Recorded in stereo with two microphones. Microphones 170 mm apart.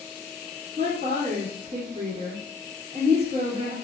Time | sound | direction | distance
0.8 | a woman speaking | 40° right (ahead or behind) | 2.0 m